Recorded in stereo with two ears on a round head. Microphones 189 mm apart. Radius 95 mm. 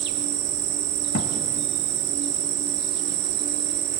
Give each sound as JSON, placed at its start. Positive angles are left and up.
{"t": 0.0, "sound": "an insect", "side_deg": -55, "distance_m": 1.1}
{"t": 1.1, "sound": "a thud", "side_deg": 65, "distance_m": 1.9}